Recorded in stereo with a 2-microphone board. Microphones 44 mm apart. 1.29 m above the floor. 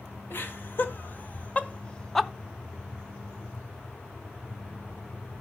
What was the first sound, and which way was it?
Laughter, 50° left (ahead or behind).